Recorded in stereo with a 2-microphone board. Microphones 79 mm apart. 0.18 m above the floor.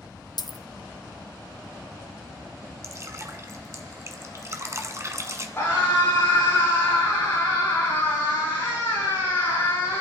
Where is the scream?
30° left (ahead or behind), 8.5 m.